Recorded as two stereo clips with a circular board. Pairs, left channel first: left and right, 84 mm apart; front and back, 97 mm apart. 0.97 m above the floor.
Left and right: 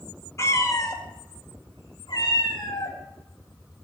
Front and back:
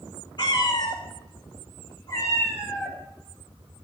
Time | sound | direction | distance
0.4 | a cat meowing | 35° left | 1.5 m